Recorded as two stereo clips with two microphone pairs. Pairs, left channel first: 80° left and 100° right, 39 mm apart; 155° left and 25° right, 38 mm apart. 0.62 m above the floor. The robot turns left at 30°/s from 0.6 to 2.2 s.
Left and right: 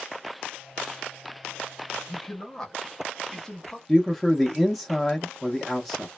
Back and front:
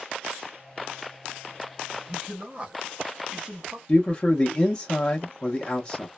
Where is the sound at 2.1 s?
20° left, 0.8 m; by 3.8 s 15° left, 0.8 m.